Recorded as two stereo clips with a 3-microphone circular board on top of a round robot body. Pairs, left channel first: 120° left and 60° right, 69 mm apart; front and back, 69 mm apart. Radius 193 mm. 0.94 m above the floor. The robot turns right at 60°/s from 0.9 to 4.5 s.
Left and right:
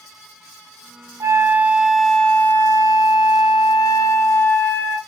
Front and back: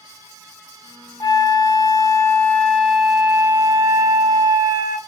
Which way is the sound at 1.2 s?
20° right.